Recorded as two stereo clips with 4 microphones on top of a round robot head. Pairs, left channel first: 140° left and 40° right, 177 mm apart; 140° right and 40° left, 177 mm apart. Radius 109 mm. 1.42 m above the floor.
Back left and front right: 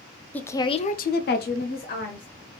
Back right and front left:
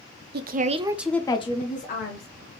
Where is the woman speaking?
60° left, 0.6 m; by 2.3 s 175° right, 1.1 m.